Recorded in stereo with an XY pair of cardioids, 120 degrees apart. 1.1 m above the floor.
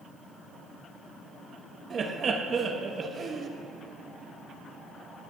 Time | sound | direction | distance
1.9 | laughter | 40° right | 1.1 m